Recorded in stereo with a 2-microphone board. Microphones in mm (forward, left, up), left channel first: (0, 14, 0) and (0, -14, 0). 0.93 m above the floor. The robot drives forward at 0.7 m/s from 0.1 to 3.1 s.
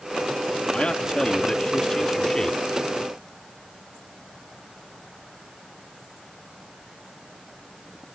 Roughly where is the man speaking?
Left.